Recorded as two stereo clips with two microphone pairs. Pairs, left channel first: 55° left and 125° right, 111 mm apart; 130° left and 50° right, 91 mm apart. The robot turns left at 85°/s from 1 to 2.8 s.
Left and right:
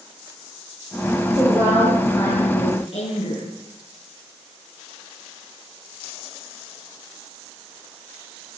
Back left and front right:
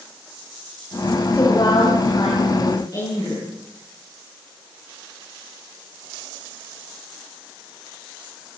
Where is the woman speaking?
155° right, 9.5 m; by 3.4 s 80° left, 9.5 m.